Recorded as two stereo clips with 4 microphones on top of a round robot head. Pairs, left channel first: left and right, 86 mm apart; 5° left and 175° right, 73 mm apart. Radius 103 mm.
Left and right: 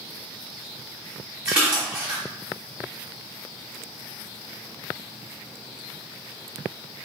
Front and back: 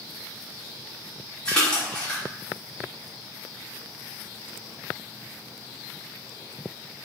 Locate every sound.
1.4 s a splash: 35° right, 1.1 m